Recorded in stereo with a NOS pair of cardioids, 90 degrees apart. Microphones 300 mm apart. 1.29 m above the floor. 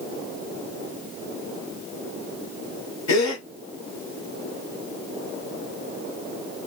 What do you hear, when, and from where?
3.1 s a gasp: 65° left, 1.5 m